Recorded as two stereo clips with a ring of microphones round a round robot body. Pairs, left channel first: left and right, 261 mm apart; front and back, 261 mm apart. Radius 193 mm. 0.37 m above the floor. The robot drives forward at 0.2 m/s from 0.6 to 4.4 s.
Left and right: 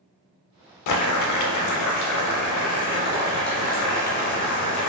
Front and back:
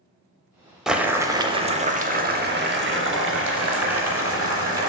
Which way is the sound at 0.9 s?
90° left.